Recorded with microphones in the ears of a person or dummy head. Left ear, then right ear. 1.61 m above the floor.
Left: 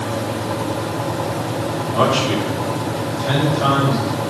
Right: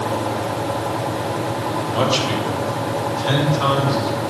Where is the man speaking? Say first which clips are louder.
Left 3 dB; 45° right (ahead or behind), 4 m; by 4.2 s 50° right (ahead or behind), 7.5 m.